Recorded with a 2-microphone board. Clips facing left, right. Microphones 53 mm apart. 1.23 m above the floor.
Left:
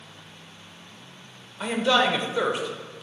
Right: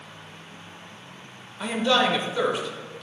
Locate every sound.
1.6 s a man speaking: 5° left (ahead or behind), 1.0 m